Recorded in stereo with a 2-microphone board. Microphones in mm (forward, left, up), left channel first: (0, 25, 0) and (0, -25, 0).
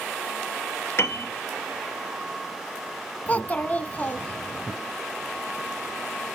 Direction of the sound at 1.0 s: 55° left (ahead or behind).